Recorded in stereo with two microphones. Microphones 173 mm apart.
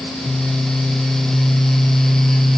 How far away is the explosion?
I don't hear an explosion.